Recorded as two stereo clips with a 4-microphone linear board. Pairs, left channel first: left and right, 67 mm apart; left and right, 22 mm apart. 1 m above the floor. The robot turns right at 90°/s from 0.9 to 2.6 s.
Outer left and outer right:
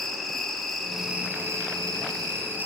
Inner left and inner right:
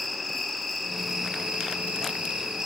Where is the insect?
175° left, 2.0 m; by 2.7 s 30° right, 2.0 m.